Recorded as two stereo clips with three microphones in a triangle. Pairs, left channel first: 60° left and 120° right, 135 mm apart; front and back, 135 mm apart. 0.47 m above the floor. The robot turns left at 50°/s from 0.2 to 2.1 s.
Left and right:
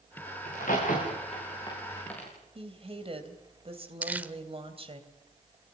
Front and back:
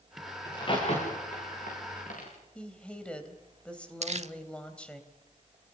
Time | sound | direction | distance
0.5 | a crack | 65° left | 9 m
2.5 | a woman speaking | 80° right | 3 m
4.0 | crumpling | 165° left | 0.8 m